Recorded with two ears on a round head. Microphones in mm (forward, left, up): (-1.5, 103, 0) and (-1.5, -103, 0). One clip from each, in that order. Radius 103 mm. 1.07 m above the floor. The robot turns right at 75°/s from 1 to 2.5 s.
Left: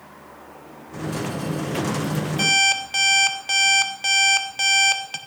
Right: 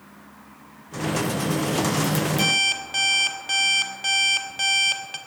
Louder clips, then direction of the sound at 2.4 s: Left 4 dB; centre (ahead or behind).